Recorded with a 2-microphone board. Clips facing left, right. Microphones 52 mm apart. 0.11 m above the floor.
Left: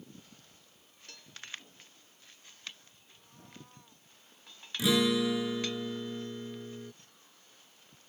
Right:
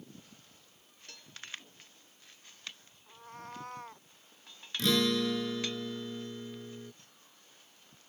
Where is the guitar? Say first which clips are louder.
Left 2 dB; 10° left (ahead or behind).